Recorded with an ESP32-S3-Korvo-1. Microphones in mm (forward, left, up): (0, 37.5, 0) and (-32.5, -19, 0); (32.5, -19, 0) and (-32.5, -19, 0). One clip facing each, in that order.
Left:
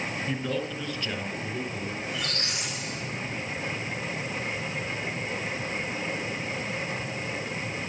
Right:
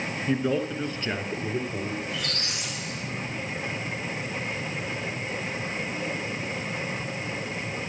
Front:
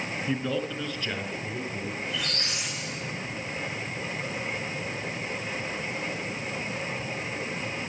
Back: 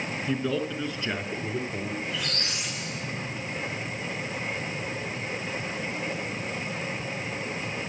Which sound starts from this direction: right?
A man speaking, at 0.3 s.